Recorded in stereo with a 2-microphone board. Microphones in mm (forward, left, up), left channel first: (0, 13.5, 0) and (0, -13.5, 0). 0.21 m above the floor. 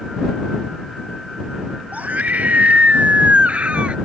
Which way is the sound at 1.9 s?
75° right (ahead or behind).